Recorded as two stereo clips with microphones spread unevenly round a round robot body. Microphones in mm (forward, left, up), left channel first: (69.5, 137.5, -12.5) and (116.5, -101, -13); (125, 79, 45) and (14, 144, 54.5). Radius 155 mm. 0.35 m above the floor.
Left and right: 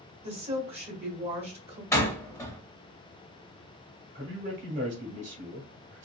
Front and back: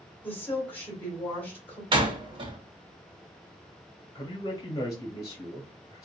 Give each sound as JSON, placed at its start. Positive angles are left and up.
{"t": 0.2, "sound": "a woman speaking", "azimuth_deg": -75, "distance_m": 1.3}
{"t": 1.9, "sound": "a door slam", "azimuth_deg": 175, "distance_m": 0.6}
{"t": 4.2, "sound": "a man speaking", "azimuth_deg": -60, "distance_m": 1.3}